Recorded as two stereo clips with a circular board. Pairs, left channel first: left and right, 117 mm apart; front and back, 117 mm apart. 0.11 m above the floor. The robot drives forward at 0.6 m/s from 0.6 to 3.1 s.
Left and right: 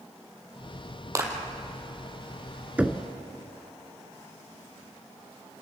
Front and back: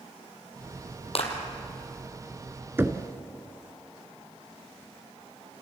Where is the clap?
30° right, 2.5 m.